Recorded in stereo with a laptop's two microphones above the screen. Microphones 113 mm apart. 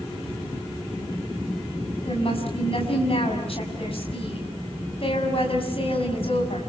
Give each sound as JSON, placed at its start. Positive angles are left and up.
{"t": 2.0, "sound": "a woman speaking", "side_deg": 55, "distance_m": 6.5}